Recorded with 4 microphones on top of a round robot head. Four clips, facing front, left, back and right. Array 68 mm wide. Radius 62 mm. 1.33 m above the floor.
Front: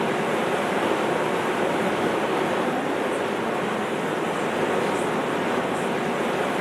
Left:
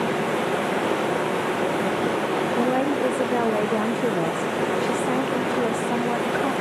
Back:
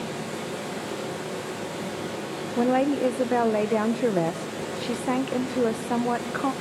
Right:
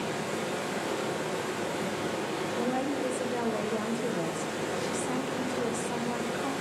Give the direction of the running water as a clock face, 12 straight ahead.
11 o'clock.